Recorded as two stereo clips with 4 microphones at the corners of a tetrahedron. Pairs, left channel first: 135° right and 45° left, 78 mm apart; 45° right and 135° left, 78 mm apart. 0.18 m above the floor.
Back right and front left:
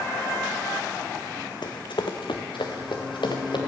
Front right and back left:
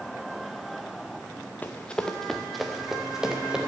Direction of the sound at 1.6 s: 115° right.